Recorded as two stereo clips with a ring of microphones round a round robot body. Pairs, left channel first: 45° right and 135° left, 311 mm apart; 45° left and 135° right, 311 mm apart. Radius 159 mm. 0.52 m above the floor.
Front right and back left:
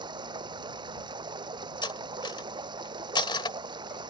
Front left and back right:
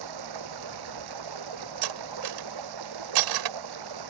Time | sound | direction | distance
0.0 | running water | 150° right | ?
1.8 | cutlery clinking | 120° right | ?